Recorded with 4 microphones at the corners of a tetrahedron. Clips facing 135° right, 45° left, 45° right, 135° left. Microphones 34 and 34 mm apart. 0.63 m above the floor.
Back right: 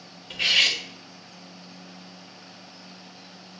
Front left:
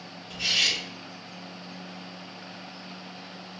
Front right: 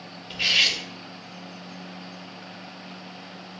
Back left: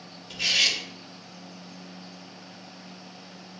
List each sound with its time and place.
0.3 s cutlery clinking: 105° right, 0.7 m